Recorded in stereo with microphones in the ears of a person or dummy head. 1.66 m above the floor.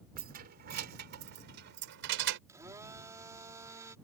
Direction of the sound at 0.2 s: 45° right (ahead or behind).